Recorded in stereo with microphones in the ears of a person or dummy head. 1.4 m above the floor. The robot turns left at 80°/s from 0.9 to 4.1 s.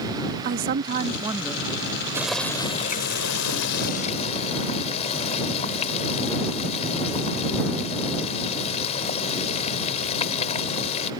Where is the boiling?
170° right; by 11.1 s 35° left.